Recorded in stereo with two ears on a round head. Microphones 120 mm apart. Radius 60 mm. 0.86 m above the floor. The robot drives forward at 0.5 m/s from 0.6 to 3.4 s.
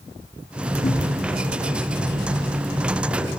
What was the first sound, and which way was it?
A cupboard door, 45° left (ahead or behind).